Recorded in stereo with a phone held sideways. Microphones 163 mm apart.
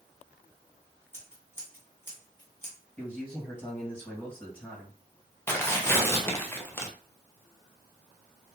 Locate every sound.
1.1 s scissors: 15° left (ahead or behind), 1.7 m
3.0 s a man speaking: 10° left (ahead or behind), 2 m
5.5 s tearing paper: 15° left (ahead or behind), 0.8 m